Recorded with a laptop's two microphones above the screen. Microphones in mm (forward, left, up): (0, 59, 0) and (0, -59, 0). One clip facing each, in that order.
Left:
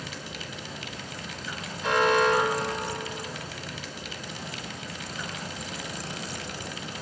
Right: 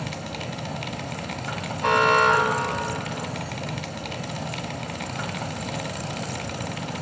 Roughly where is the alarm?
Right.